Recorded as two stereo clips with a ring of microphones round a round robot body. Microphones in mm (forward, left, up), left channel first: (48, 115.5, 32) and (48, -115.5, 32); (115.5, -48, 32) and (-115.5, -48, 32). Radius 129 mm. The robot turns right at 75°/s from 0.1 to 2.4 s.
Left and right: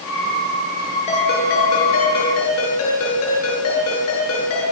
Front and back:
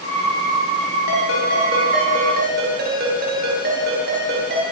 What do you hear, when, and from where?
1.1 s a ringtone: 25° left, 9.5 m; by 4.6 s 125° left, 9.5 m